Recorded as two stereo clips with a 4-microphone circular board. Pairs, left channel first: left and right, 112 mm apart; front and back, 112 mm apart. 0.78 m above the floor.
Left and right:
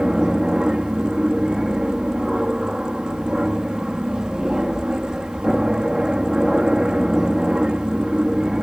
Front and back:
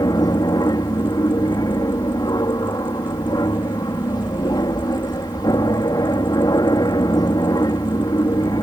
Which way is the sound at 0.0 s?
10° right.